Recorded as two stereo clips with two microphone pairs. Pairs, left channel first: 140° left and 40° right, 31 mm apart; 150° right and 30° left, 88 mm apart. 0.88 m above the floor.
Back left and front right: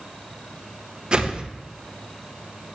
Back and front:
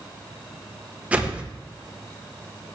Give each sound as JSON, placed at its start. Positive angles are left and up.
{"t": 1.1, "sound": "a whoosh", "azimuth_deg": -30, "distance_m": 0.9}